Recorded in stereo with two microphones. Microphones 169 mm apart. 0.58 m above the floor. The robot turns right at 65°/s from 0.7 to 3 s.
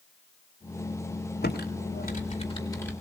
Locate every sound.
1.4 s typing on a keyboard: 60° left (ahead or behind), 2.5 m; by 2.9 s 10° left (ahead or behind), 2.5 m